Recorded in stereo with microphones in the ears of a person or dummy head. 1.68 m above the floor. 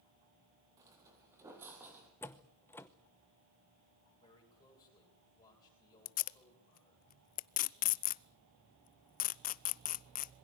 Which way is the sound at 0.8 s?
20° right (ahead or behind).